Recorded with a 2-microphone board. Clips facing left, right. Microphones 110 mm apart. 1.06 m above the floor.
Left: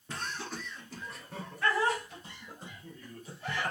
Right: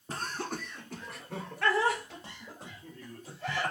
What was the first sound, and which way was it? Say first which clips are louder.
Laughter: right 3 dB; 35° right (ahead or behind).